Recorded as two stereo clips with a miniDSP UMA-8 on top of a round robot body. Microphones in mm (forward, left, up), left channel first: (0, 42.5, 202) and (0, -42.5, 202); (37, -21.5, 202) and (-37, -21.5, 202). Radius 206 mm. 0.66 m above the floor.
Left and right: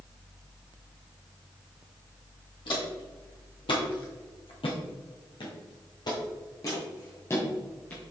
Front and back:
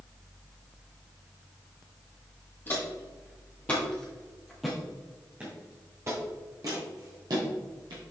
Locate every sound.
2.7 s footsteps: 60° left, 2 m; by 8.0 s 160° left, 2.0 m